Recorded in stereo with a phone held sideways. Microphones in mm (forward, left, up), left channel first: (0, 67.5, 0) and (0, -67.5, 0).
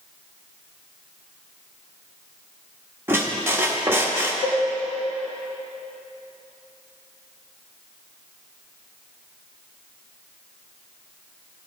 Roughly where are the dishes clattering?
Left.